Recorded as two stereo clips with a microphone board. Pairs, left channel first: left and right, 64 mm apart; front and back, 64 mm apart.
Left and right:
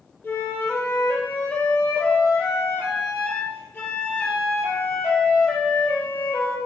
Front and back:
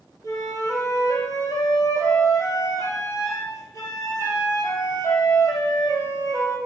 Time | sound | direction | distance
0.2 | a flute | 25° left | 3.5 m